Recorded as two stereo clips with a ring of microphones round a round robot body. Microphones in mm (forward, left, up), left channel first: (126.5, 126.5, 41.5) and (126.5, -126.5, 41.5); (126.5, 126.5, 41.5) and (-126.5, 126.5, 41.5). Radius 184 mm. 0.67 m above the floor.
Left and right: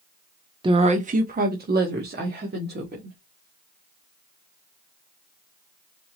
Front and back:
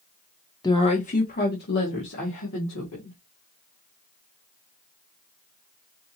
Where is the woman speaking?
50° right, 0.6 m; by 3.2 s 40° right, 1.7 m.